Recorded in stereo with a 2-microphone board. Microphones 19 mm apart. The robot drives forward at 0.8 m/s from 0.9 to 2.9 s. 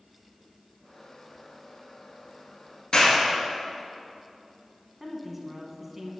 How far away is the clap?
About 2.5 m.